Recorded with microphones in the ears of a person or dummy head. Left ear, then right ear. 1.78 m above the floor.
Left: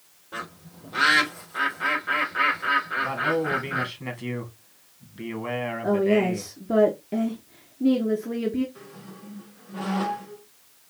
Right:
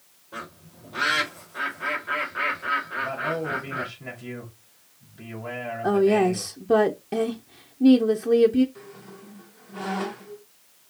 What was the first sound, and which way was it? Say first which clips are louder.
A bird: left 2 dB; 25° left (ahead or behind).